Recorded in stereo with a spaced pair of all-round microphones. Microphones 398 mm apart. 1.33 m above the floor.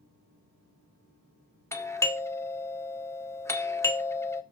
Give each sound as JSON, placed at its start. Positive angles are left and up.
{"t": 1.7, "sound": "a doorbell", "side_deg": 5, "distance_m": 0.6}